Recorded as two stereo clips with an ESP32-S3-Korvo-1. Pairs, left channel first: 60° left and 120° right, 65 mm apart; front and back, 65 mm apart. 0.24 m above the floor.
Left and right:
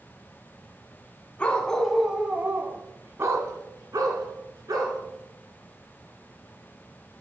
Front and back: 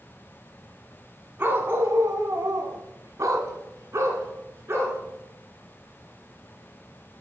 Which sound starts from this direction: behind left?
A dog barking, at 1.4 s.